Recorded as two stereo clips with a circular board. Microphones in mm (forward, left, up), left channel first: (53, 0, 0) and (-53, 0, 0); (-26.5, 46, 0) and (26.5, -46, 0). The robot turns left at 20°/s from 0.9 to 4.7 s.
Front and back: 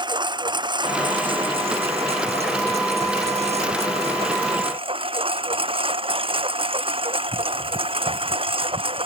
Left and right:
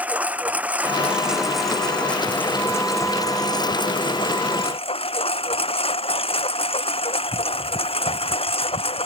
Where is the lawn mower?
135° right; by 9.1 s 145° left.